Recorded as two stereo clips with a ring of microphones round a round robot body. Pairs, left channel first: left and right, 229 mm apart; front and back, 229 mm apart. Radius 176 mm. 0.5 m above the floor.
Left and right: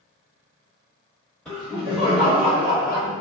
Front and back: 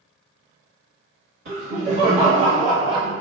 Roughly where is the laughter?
Behind.